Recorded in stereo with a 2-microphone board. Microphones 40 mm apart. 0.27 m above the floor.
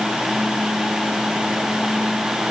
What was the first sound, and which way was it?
Only background noise.